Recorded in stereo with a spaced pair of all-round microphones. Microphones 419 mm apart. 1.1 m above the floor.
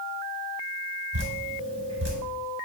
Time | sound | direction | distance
1.1 | dripping | 85° right | 3.5 m